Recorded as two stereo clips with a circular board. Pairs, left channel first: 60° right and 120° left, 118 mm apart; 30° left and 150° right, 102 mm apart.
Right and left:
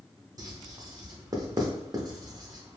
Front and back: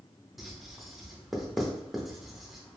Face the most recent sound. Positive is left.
turn(degrees=120)